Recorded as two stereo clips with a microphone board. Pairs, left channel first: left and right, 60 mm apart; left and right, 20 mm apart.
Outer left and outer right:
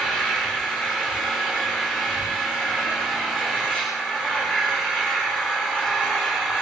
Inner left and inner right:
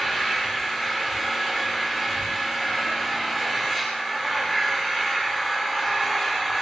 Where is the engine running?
15° left (ahead or behind), 7 m.